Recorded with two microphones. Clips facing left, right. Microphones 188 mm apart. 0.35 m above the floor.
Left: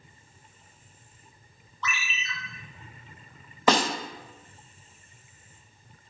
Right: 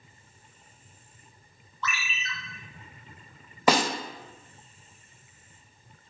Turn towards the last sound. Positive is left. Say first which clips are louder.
# even
turn(degrees=-10)  # may be behind; listen again after turning